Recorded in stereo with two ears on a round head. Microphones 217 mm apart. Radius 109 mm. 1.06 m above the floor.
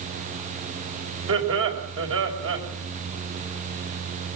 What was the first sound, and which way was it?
Laughter, 55° right (ahead or behind).